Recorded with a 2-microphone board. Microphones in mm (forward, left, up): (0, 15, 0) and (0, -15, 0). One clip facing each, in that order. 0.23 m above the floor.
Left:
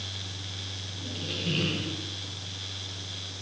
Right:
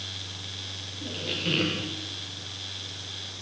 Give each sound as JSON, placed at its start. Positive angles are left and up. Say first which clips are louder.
{"t": 1.0, "sound": "a squeak", "louder": "right 3 dB", "side_deg": -65, "distance_m": 5.0}